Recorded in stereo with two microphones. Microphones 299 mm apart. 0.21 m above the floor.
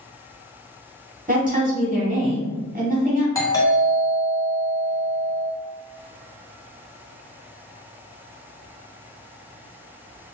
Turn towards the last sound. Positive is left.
turn(degrees=10)  # may be behind; listen again after turning